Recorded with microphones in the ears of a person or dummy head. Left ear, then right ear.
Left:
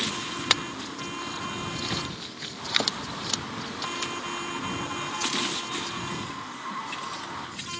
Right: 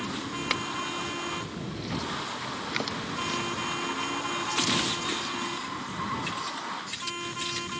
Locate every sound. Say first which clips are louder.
0.5 s a clink: left 4 dB; 30° left (ahead or behind)